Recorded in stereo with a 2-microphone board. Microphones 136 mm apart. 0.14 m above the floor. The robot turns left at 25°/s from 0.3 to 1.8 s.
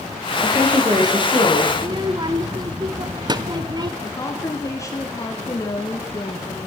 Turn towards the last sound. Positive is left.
turn(degrees=25)  # may be behind; listen again after turning